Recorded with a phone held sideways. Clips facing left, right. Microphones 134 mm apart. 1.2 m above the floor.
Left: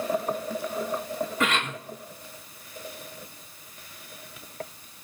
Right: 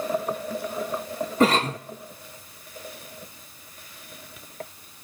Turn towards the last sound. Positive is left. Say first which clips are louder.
# right 10 dB
turn(degrees=-35)  # may be behind; listen again after turning